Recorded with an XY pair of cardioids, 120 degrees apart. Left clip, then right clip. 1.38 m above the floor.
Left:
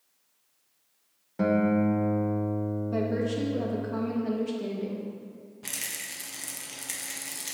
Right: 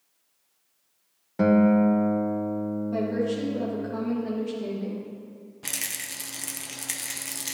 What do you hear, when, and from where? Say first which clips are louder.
1.4 s a guitar: right 4 dB; 25° right, 0.7 m
2.9 s a woman speaking: right 2 dB; 15° left, 1.4 m
5.6 s a rattle: right 3 dB; 25° right, 0.8 m